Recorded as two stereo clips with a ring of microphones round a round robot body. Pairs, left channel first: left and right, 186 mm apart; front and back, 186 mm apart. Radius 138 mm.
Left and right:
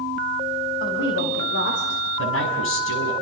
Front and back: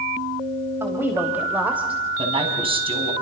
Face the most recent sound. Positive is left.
turn(degrees=120)